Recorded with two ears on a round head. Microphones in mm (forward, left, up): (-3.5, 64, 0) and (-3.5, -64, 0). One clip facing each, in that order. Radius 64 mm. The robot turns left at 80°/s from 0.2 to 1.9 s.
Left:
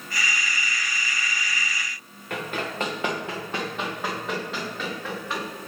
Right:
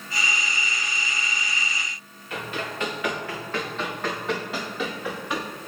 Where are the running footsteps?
45° left (ahead or behind), 2 m; by 5.5 s 15° right (ahead or behind), 3.5 m.